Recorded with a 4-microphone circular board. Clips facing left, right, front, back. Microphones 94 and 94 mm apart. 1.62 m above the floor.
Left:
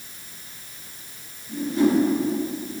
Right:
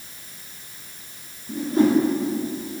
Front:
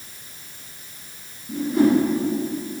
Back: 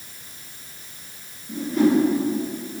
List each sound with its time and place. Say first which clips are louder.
1.5 s a whoosh: right 2 dB, front 1 dB; 80° right, 1.5 m